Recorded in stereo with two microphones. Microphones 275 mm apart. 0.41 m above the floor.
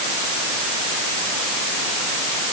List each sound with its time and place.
Only background noise.